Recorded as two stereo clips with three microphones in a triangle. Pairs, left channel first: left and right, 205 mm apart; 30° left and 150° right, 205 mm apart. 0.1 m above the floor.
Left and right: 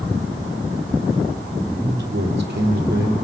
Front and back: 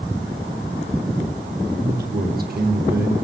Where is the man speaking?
115° right, 4 m.